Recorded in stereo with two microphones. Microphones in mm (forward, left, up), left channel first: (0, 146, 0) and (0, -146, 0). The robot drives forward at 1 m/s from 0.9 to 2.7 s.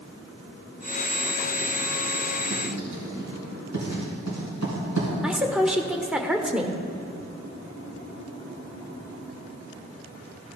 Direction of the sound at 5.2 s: 5° right (ahead or behind).